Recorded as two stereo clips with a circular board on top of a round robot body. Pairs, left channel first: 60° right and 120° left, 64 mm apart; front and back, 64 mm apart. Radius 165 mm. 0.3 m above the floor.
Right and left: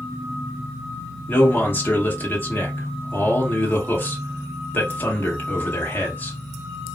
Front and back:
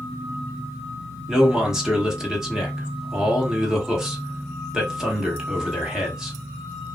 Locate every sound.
1.3 s a man speaking: 100° right, 1.8 m